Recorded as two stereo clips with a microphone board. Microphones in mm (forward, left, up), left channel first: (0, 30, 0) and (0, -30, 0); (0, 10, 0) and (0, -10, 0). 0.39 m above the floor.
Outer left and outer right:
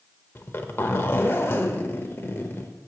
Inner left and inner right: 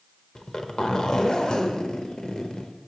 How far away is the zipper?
About 0.7 m.